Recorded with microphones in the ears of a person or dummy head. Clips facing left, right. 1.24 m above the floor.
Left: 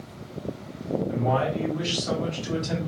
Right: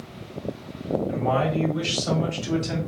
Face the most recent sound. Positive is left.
turn(degrees=-60)  # may be behind; listen again after turning